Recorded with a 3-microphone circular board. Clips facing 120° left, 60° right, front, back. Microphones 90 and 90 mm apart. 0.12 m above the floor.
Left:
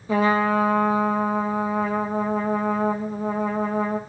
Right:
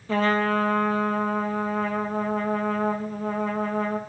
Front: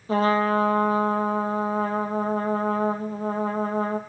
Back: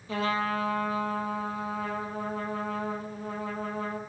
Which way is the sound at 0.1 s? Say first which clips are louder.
Left 3 dB, front 8 dB; 45° left.